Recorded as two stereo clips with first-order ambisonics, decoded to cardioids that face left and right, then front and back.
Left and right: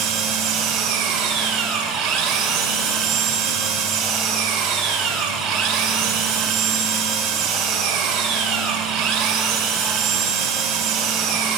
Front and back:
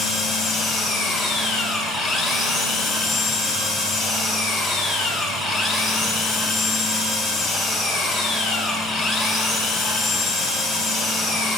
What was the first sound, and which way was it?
An engine running, 95° right.